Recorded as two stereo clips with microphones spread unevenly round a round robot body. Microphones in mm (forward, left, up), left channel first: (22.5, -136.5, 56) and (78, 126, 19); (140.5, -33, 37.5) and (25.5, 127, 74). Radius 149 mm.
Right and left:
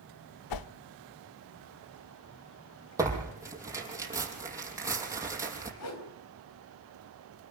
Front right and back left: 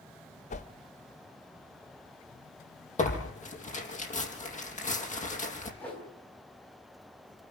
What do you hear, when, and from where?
0.5 s a whoosh: 115° right, 0.7 m
3.0 s tearing paper: straight ahead, 5 m
5.8 s a whoosh: 135° right, 4 m